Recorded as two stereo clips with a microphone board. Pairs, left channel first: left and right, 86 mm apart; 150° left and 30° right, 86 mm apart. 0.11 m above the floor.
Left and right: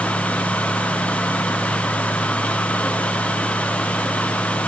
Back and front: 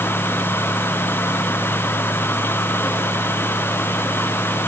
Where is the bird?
I don't hear a bird.